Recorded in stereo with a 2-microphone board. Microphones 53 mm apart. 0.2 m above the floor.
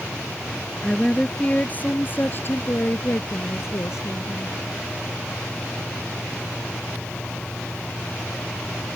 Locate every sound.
0.8 s a woman speaking: 15° left (ahead or behind); by 4.6 s 65° left (ahead or behind)